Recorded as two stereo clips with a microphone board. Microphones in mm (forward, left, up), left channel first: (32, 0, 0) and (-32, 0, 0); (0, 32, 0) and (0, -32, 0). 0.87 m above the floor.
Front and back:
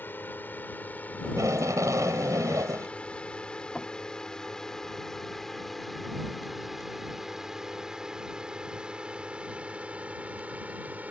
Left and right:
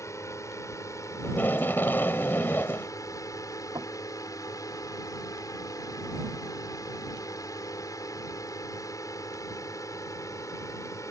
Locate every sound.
0.0 s a drone: 55° left; by 11.1 s 120° left
1.2 s tape being pulled: 150° left
3.8 s knocking: 80° right